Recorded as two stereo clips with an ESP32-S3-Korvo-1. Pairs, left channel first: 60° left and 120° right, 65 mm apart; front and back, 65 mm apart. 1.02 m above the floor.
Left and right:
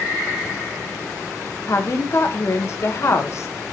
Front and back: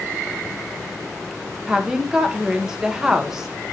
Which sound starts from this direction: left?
A woman speaking, at 1.7 s.